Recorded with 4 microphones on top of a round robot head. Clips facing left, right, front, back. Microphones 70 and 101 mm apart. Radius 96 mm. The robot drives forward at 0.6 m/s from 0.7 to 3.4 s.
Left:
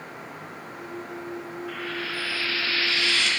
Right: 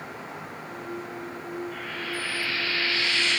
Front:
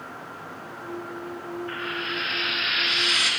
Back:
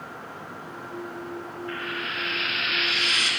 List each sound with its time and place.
1.7 s frying: 60° left, 3 m; by 3.3 s 80° left, 2.5 m